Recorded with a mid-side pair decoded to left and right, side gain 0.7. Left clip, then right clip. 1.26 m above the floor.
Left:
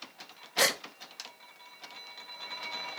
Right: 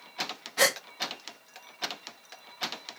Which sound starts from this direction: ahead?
A gasp, at 0.6 s.